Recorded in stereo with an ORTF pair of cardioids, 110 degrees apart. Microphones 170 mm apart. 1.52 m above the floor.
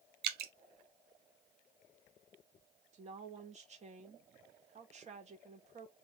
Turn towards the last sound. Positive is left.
turn(degrees=-40)